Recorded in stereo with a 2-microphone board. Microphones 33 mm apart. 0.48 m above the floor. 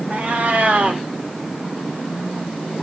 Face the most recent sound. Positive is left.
turn(degrees=-50)  # may be behind; listen again after turning